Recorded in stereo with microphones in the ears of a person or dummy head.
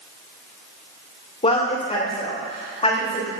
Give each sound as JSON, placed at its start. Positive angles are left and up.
{"t": 1.4, "sound": "a woman speaking", "side_deg": 25, "distance_m": 1.8}